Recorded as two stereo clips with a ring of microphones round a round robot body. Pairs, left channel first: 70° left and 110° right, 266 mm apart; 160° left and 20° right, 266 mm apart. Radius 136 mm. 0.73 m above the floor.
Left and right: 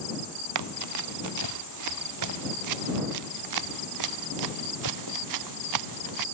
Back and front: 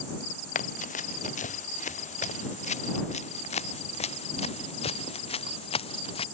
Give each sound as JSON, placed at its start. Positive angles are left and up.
{"t": 0.6, "sound": "running footsteps", "azimuth_deg": -140}